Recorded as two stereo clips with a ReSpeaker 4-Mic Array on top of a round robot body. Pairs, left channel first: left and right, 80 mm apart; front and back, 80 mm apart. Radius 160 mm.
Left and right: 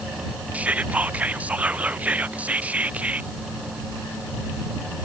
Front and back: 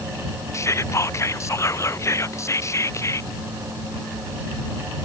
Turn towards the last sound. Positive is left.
turn(degrees=-25)